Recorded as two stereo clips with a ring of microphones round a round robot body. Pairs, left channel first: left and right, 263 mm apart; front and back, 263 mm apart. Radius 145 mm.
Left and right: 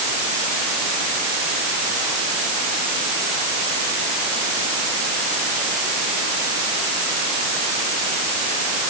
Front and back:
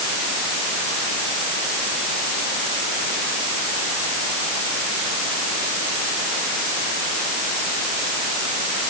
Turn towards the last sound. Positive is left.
No sound to turn to.